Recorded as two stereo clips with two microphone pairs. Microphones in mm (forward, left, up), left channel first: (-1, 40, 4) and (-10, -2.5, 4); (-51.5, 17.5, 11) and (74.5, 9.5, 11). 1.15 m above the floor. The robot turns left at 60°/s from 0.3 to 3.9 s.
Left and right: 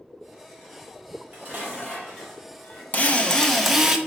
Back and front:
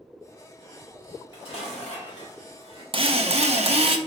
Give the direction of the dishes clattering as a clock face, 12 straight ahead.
4 o'clock.